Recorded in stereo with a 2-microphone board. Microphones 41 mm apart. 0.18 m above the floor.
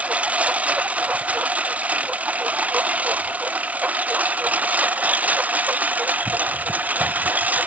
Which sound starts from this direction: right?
A lawn mower, at 0.0 s.